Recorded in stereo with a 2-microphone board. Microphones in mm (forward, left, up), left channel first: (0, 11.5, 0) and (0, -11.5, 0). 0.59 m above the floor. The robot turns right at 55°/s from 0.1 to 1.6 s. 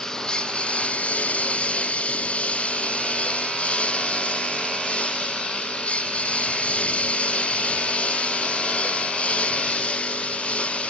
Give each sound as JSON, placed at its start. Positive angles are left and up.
{"t": 0.0, "sound": "a lawn mower", "side_deg": 25}